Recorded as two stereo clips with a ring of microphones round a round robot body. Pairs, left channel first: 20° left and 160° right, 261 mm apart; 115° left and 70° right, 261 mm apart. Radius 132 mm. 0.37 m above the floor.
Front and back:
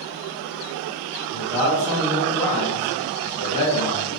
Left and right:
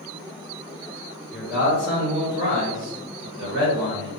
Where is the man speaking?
155° right, 1.3 m; by 4.1 s 35° right, 2 m.